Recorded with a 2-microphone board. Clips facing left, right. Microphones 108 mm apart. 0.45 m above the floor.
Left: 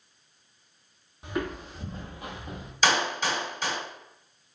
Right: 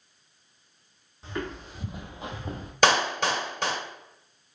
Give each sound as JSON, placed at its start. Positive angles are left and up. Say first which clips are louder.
{"t": 1.2, "sound": "footsteps", "louder": "left 3 dB", "side_deg": 15, "distance_m": 1.1}
{"t": 2.8, "sound": "a clap", "louder": "right 3 dB", "side_deg": -60, "distance_m": 1.3}